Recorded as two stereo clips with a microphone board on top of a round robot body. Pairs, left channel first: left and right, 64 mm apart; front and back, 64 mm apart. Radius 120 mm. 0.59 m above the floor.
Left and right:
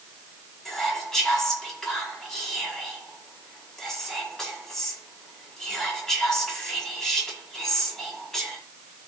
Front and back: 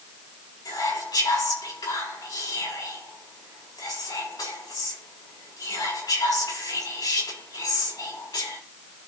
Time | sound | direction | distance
0.7 | whispering | 5° left | 5 m